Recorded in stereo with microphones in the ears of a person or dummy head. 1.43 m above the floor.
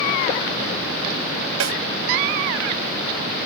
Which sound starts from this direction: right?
A snare drum, at 1.6 s.